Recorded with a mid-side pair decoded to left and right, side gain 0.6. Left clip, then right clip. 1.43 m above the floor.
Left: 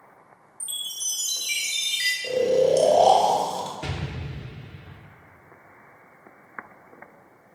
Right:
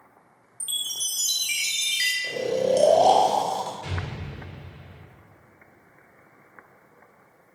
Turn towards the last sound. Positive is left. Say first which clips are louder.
# left 1 dB
turn(degrees=55)